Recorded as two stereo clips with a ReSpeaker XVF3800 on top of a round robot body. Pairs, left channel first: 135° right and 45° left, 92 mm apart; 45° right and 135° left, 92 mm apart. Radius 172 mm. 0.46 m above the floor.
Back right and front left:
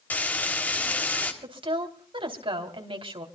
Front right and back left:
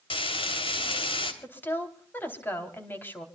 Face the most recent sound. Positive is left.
turn(degrees=25)